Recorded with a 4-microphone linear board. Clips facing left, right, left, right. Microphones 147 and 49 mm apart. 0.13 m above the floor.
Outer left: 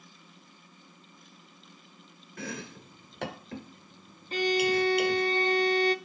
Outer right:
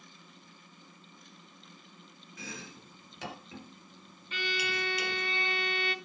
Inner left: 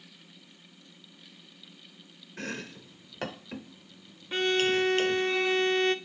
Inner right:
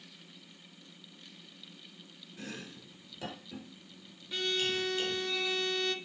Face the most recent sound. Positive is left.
turn(degrees=40)  # may be behind; listen again after turning